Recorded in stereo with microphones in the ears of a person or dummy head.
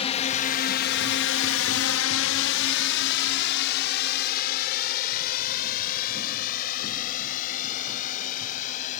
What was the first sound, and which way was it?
A drone, 30° left (ahead or behind).